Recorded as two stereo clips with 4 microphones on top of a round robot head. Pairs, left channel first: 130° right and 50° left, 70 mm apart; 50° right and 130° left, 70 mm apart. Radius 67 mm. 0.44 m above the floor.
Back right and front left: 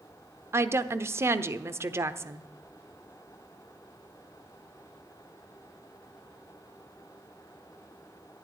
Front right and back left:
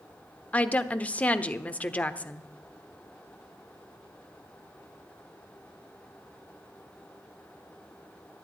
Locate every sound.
0.5 s a woman speaking: 10° left, 1.0 m